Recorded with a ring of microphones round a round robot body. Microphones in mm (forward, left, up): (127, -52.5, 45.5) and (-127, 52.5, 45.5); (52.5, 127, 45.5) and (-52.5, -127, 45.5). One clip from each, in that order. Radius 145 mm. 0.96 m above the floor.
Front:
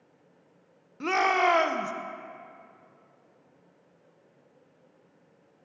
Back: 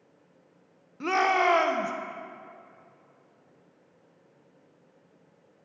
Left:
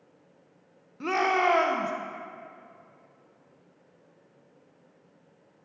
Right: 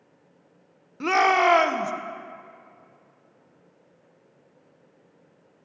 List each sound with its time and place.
1.0 s a shout: 95° right, 0.8 m